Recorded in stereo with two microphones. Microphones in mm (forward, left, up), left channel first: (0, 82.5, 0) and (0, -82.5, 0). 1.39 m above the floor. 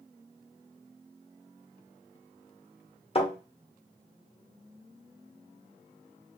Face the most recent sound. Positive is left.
turn(degrees=35)  # may be behind; listen again after turning